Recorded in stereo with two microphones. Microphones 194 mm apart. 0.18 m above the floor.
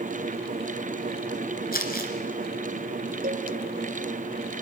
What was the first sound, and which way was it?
Crumpling, 50° left (ahead or behind).